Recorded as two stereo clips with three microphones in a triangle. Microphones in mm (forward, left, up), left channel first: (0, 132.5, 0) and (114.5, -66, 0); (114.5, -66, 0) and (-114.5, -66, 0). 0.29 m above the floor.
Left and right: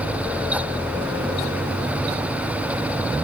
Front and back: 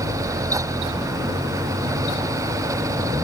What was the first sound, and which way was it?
Only background noise.